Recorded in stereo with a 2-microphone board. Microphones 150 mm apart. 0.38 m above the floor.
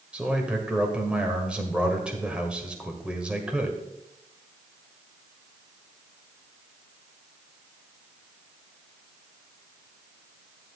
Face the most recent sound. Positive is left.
turn(degrees=-5)  # may be behind; listen again after turning